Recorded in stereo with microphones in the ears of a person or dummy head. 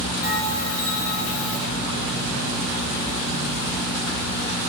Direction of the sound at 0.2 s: 45° left (ahead or behind).